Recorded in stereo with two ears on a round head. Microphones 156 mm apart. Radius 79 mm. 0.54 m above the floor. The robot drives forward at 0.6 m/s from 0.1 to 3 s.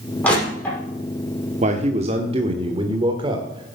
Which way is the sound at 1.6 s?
40° right (ahead or behind).